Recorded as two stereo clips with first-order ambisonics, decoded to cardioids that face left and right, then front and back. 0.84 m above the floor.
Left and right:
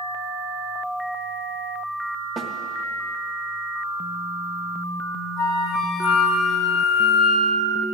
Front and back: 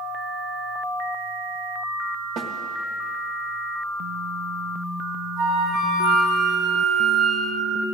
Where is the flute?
120° left, 4.5 m.